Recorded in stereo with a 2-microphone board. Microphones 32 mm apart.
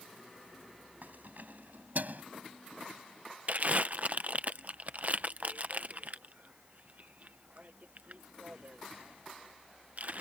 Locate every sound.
1.0 s keys jangling: 70° right (ahead or behind); by 2.2 s 65° right (ahead or behind)
3.5 s crumpling: 50° right (ahead or behind)